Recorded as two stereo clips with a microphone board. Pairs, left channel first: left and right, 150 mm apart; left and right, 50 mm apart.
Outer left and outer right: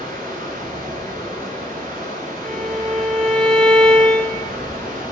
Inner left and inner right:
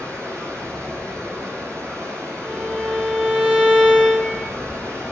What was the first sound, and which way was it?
Running water, 90° right.